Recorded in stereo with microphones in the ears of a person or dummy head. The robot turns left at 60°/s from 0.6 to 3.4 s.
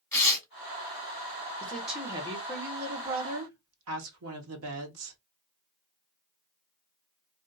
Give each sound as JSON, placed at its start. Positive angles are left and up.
{"t": 0.1, "sound": "tearing paper", "side_deg": 15, "distance_m": 0.9}
{"t": 1.6, "sound": "a woman speaking", "azimuth_deg": 15, "distance_m": 1.1}